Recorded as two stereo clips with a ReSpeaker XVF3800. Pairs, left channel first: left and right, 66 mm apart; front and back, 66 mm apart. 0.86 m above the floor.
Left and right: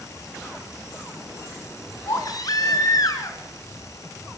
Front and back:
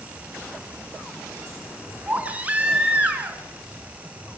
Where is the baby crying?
115° left, 4.5 m.